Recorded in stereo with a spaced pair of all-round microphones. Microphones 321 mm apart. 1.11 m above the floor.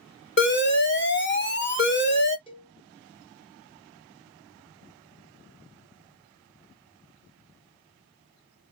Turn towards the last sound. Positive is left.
turn(degrees=15)  # may be behind; listen again after turning